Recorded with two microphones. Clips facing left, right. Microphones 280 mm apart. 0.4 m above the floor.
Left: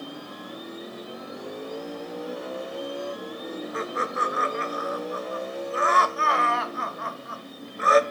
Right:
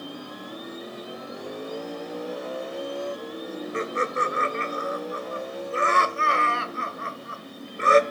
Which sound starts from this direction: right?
Laughter, at 3.7 s.